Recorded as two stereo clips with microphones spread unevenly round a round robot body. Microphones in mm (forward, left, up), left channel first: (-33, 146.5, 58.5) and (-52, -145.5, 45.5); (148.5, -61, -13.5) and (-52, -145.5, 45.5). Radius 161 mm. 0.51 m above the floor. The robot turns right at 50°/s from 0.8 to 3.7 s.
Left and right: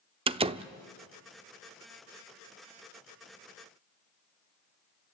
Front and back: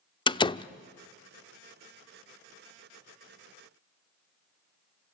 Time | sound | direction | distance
0.3 | a door slam | 30° right | 0.7 m